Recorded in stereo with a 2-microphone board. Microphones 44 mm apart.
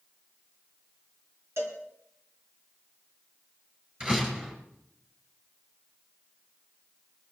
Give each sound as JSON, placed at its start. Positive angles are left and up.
{"t": 1.6, "sound": "a cowbell", "side_deg": -80, "distance_m": 3.0}
{"t": 4.0, "sound": "a door slam", "side_deg": -25, "distance_m": 5.5}